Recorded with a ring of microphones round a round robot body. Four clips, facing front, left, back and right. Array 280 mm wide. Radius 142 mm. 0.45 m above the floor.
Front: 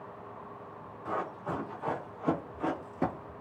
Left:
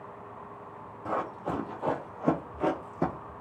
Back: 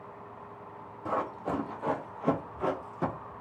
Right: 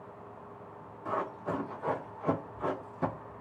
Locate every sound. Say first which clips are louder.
1.1 s running footsteps: left 2 dB, back 3 dB; 130° left, 1.3 m; by 3.3 s 55° left, 0.8 m